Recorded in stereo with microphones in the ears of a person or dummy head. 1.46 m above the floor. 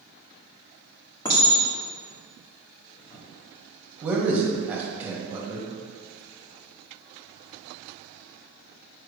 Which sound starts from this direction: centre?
A man speaking, at 4.0 s.